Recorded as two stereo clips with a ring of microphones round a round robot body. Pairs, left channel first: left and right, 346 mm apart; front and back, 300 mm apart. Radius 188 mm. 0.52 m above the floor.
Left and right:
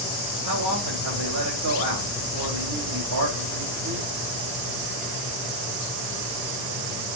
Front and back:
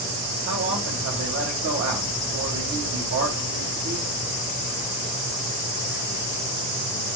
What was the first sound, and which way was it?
A man speaking, 125° right.